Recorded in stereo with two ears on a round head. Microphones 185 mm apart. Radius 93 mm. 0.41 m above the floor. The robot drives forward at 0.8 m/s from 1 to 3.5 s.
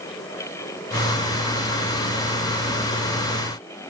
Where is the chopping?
No chopping in this recording.